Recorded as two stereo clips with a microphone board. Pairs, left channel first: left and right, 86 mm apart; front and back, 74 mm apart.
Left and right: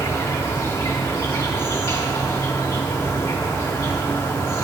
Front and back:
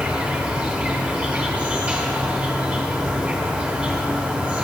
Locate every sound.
0.0 s an insect: 120° left, 1.4 m